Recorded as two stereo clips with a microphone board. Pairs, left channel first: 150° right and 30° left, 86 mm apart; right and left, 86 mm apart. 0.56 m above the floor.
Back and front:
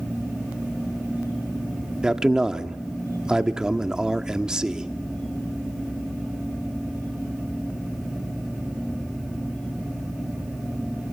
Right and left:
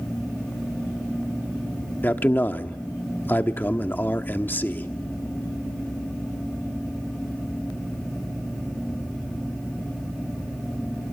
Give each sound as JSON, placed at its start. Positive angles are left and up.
{"t": 2.0, "sound": "a man speaking", "azimuth_deg": -45, "distance_m": 1.0}